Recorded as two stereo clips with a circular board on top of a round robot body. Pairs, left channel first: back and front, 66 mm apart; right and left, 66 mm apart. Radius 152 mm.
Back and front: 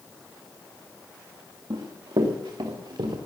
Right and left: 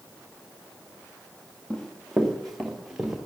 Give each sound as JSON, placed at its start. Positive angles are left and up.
{"t": 1.7, "sound": "running footsteps", "azimuth_deg": -15, "distance_m": 3.0}